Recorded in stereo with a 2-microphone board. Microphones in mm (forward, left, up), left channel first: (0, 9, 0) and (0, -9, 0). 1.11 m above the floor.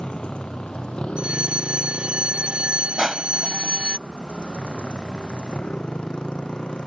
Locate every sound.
0.0 s a motorcycle: 75° left (ahead or behind)
1.2 s a fire alarm: 80° right
3.0 s crushing: 15° right (ahead or behind)